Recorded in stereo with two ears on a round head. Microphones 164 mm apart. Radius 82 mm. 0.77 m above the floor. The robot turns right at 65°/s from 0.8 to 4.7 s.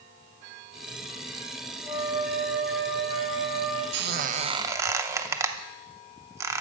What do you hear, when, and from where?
1.8 s a flute: 130° left, 3 m; by 3.8 s 100° right, 3 m
3.9 s a squeak: 65° right (ahead or behind), 0.7 m; by 6.6 s 15° right (ahead or behind), 0.7 m